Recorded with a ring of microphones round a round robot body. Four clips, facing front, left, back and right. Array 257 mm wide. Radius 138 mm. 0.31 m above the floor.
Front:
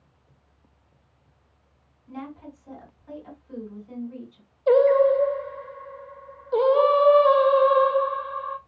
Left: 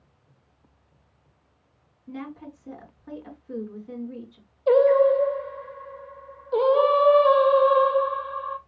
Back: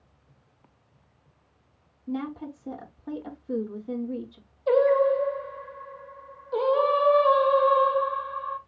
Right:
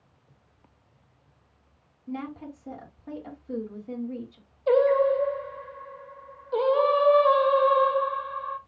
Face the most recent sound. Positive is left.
turn(degrees=45)